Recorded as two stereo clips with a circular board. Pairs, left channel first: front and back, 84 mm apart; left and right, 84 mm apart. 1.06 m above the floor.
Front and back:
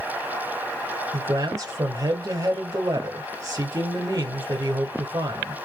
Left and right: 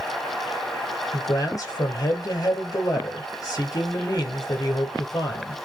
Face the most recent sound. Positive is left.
turn(degrees=135)